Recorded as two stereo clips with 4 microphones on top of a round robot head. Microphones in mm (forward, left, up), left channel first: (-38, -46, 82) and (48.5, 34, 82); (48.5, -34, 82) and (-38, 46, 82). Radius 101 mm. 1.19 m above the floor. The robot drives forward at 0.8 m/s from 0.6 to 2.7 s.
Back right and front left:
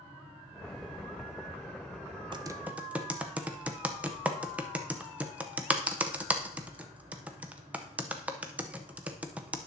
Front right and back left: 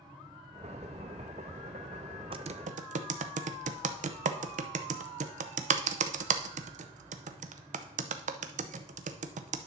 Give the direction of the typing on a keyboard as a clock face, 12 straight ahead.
9 o'clock.